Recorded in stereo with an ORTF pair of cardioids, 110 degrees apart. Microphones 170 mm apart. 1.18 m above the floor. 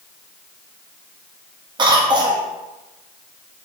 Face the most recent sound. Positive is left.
turn(degrees=-30)